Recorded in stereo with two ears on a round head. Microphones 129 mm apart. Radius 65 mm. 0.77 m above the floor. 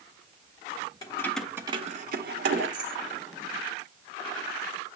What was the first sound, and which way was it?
Keys jangling, 25° left (ahead or behind).